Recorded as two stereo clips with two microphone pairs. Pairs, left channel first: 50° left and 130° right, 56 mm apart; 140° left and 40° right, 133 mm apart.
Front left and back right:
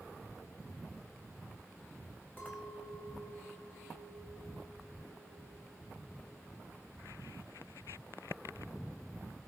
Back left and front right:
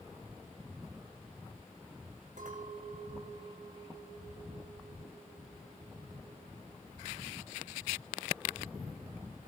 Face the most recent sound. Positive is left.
turn(degrees=-10)